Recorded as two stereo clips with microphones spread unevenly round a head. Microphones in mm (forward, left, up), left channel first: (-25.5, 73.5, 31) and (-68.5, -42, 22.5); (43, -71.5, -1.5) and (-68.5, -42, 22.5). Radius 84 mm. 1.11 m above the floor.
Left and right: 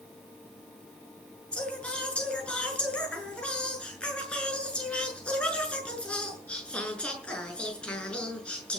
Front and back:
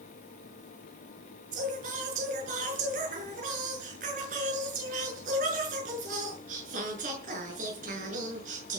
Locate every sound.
1.5 s singing: 150° left, 7 m